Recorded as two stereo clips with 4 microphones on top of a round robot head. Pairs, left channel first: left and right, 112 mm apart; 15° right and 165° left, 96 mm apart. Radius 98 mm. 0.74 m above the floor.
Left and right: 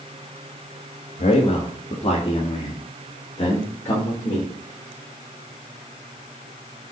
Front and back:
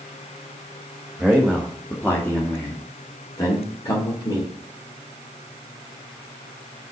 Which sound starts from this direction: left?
A man speaking, at 1.2 s.